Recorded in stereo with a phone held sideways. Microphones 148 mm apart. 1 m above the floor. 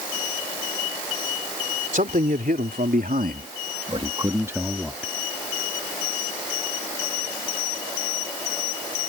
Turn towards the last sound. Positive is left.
turn(degrees=0)  # may be behind; listen again after turning